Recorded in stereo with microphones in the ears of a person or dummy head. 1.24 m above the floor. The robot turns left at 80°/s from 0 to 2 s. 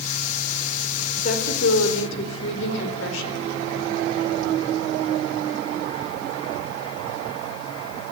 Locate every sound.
1.2 s a woman speaking: 145° left, 4.5 m; by 3.4 s 75° left, 4.5 m